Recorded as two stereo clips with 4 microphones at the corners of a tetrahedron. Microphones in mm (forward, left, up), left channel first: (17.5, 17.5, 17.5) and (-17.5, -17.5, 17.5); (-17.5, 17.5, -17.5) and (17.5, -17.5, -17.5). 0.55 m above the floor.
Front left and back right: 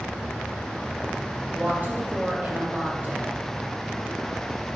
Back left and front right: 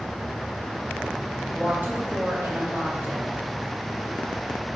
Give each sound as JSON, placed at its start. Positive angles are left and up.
{"t": 1.5, "sound": "a woman speaking", "azimuth_deg": -85, "distance_m": 2.0}